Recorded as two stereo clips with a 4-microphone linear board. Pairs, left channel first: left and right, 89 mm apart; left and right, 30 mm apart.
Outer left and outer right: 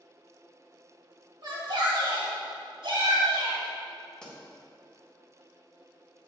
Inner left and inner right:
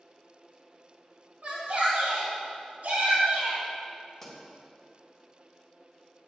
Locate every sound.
1.4 s a shout: 60° right (ahead or behind), 2 m; by 3.6 s 65° right (ahead or behind), 3.5 m
4.2 s a pop: 10° left (ahead or behind), 3 m